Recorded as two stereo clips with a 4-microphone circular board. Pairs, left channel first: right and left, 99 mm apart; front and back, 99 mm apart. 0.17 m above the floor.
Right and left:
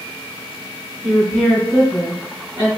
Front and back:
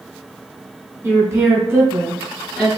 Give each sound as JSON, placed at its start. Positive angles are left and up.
{"t": 1.0, "sound": "a woman speaking", "azimuth_deg": -170, "distance_m": 1.8}